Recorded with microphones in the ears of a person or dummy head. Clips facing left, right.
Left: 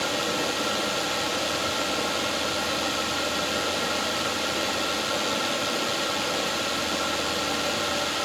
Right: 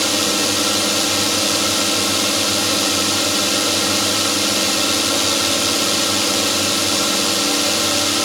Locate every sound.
0.0 s a drone: 65° right (ahead or behind)